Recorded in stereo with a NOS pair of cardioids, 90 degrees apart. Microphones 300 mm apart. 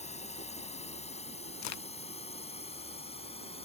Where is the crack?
65° left.